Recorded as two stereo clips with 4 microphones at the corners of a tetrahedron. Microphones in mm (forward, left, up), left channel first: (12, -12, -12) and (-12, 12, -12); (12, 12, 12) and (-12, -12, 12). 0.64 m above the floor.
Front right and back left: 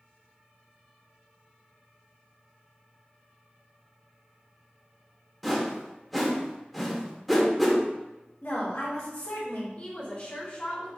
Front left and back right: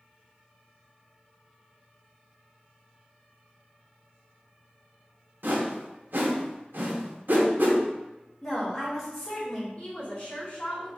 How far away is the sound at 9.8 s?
About 2 m.